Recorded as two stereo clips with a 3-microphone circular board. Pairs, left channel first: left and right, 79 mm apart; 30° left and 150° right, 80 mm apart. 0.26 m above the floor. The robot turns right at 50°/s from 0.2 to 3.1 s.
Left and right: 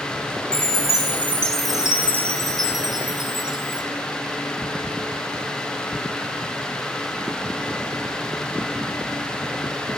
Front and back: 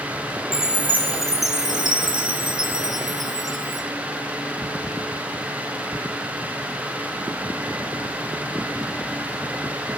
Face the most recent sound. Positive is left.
turn(degrees=-110)